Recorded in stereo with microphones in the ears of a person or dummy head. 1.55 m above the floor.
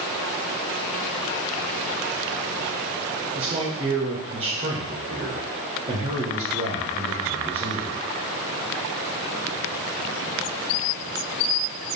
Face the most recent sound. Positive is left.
turn(degrees=-35)  # may be behind; listen again after turning